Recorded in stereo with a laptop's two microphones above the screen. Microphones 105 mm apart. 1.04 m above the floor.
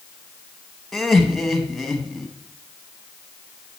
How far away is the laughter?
About 1.0 m.